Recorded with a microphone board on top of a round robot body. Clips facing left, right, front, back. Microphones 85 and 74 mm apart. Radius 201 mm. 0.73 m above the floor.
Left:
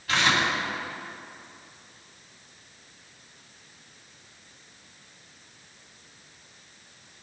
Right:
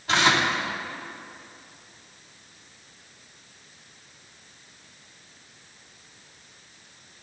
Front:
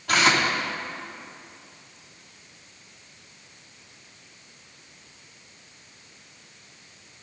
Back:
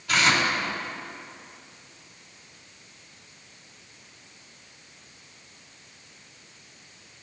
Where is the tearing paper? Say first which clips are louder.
Right 3 dB, front 2 dB; 25° right, 3 m.